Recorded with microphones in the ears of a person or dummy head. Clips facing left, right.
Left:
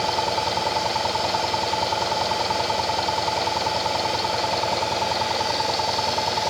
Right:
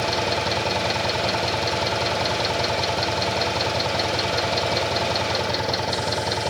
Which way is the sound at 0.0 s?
20° right (ahead or behind).